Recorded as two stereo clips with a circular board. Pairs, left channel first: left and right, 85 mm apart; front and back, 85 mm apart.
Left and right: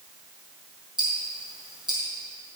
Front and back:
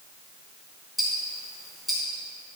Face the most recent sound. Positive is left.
turn(degrees=-90)